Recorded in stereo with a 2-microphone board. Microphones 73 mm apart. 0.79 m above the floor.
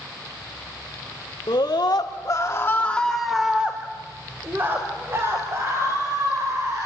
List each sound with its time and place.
1.5 s a scream: 75° left (ahead or behind), 1.8 m; by 6.9 s 45° right (ahead or behind), 5 m